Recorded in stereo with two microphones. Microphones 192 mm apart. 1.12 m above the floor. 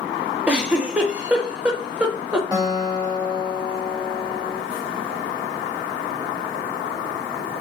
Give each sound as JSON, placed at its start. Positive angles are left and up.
{"t": 0.5, "sound": "a giggle", "side_deg": -5, "distance_m": 0.8}
{"t": 2.5, "sound": "a guitar", "side_deg": -20, "distance_m": 1.5}